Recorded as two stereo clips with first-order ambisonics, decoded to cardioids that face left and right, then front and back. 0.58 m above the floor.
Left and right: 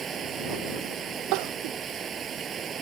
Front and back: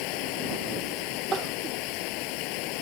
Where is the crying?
110° right.